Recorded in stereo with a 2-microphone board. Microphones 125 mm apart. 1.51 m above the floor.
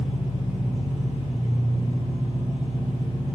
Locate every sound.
0.0 s an engine running: 55° right (ahead or behind), 0.8 m